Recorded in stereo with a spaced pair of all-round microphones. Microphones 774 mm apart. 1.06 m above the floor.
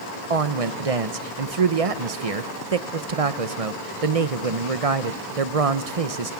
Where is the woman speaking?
50° right (ahead or behind), 1.0 m.